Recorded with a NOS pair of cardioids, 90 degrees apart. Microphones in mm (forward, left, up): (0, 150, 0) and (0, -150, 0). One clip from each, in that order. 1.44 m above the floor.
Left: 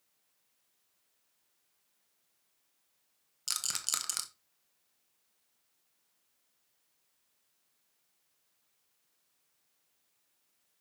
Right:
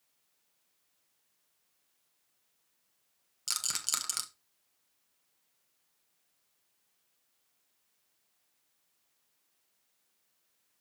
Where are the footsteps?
No footsteps in this recording.